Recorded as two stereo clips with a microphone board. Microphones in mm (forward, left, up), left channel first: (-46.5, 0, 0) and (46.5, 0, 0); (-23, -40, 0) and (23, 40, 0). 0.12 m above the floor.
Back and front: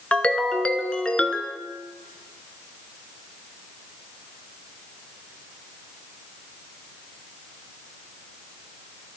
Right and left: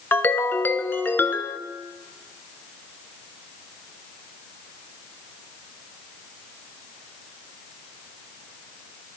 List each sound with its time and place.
0.1 s a ringtone: 120° right, 0.6 m